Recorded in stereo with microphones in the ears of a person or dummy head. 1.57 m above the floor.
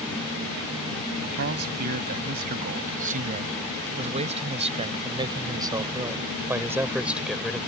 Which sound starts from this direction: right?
A man speaking, at 1.4 s.